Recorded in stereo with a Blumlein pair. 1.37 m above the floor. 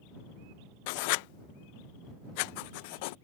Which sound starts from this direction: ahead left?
Writing, at 0.9 s.